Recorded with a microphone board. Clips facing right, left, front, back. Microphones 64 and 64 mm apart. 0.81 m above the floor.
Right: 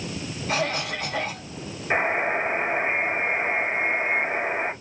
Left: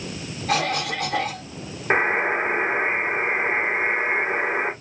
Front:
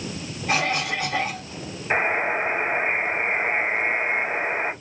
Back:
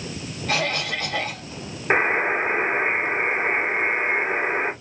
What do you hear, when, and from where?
0.5 s a cough: 70° left, 2.5 m
1.9 s a buzzer: 130° left, 3 m